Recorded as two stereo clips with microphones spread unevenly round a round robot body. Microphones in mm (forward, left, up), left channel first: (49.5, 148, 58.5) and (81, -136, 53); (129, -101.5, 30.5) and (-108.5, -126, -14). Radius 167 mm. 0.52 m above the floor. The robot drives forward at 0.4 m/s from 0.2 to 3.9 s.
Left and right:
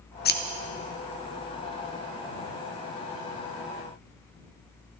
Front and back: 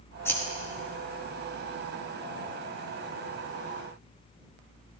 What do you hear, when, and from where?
0.2 s scissors: 95° left, 0.7 m; by 0.4 s 105° left, 0.7 m